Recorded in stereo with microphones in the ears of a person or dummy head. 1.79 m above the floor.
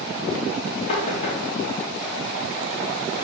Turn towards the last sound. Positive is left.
turn(degrees=35)  # may be behind; listen again after turning